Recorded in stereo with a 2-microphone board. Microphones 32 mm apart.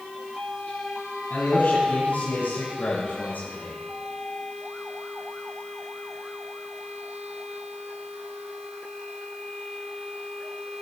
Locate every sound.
1.3 s a man speaking: 70° left (ahead or behind), 8.5 m; by 3.8 s 80° left, 10 m